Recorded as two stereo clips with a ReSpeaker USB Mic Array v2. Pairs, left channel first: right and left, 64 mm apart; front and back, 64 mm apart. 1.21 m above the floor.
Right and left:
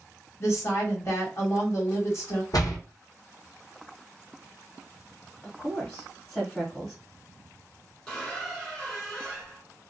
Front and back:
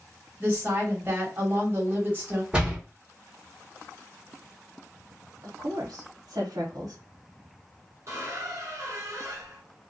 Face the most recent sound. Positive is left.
turn(degrees=-165)